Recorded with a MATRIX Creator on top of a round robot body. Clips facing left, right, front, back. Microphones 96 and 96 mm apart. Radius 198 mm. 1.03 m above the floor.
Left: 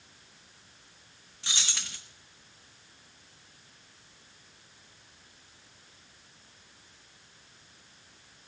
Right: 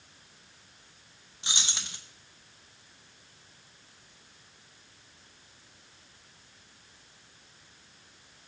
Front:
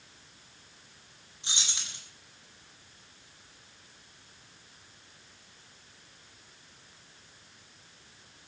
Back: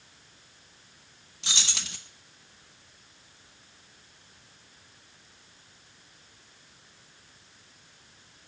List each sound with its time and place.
1.4 s keys jangling: 160° right, 0.6 m